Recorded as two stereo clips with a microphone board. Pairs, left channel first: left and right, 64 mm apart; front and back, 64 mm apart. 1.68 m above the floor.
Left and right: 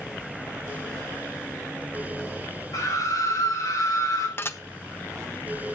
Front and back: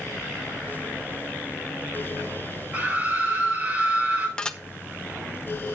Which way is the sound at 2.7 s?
115° left.